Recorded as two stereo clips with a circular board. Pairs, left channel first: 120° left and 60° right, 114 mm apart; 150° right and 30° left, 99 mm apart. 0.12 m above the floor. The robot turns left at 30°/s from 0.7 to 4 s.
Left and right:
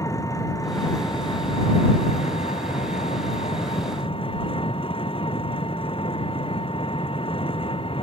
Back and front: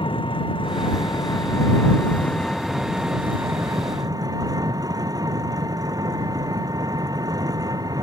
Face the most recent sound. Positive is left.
turn(degrees=80)